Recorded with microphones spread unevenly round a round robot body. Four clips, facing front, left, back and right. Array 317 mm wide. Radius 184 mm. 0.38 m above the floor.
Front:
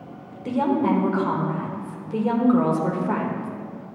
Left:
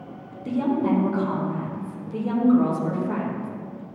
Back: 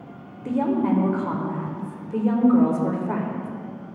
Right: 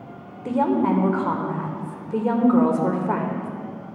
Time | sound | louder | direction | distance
0.5 | a woman speaking | right 2 dB, front 1 dB | 80° right | 1.5 m